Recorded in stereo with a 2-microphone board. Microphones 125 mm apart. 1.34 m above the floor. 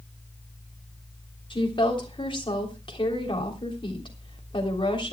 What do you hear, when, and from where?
1.5 s a woman speaking: 40° left (ahead or behind), 3 m